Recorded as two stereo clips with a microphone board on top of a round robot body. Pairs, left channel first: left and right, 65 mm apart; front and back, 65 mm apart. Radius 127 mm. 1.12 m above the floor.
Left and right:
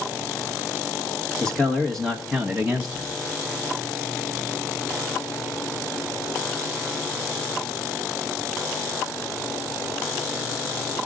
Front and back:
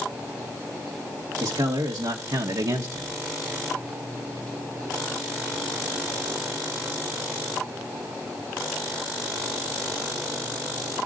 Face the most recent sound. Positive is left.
turn(degrees=-160)